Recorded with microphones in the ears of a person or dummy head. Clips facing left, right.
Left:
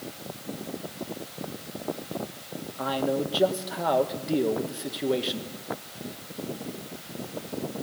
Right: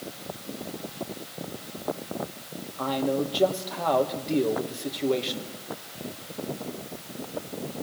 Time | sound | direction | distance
2.8 | a man speaking | 5° left (ahead or behind) | 1.8 m